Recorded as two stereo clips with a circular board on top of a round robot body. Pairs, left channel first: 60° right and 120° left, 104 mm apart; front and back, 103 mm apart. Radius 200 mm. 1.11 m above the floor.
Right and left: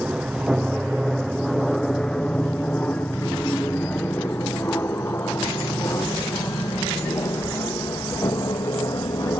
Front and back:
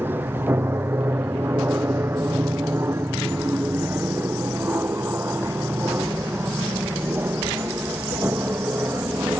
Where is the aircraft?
Straight behind; by 9.4 s 110° right.